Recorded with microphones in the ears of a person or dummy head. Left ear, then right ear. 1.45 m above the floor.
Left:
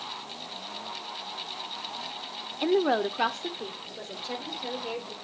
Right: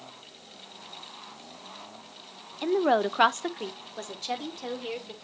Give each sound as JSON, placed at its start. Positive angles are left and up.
{"t": 2.6, "sound": "a woman speaking", "side_deg": 10, "distance_m": 0.5}